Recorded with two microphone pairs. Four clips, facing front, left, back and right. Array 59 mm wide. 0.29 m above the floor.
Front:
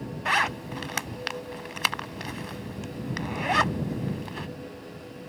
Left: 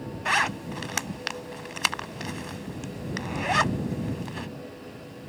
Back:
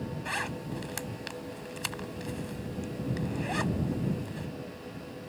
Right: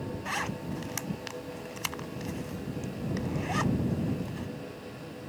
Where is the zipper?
40° left.